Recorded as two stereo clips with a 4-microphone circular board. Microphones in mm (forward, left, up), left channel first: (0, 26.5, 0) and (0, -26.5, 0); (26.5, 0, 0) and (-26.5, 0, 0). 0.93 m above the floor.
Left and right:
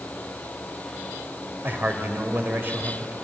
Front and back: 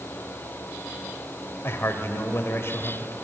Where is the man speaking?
40° right, 3 m.